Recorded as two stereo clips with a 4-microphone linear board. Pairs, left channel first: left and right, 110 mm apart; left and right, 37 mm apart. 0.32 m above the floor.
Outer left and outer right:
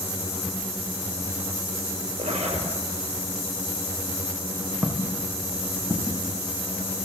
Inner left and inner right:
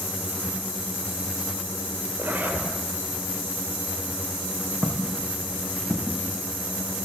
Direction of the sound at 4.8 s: 15° right (ahead or behind).